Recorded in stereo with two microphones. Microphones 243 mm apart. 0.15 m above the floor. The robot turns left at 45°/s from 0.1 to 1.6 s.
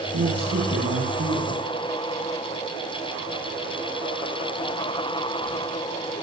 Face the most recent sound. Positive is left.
turn(degrees=-150)